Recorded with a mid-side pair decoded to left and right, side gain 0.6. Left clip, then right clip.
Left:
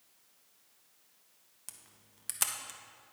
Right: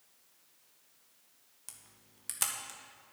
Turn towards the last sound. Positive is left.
turn(degrees=10)